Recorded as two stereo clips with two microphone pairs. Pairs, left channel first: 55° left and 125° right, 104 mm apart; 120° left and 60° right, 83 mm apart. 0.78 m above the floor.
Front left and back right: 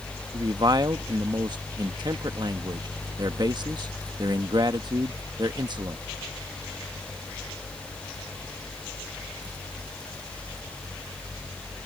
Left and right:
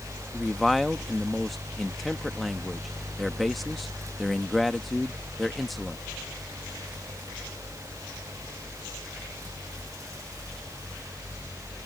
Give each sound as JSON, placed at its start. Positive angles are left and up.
{"t": 0.3, "sound": "a man speaking", "azimuth_deg": -150}